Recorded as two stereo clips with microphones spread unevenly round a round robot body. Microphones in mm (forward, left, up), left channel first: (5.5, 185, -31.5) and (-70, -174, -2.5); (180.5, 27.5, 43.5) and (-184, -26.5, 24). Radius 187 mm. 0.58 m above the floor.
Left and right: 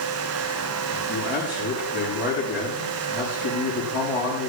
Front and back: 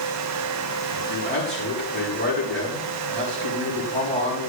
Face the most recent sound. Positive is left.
turn(degrees=170)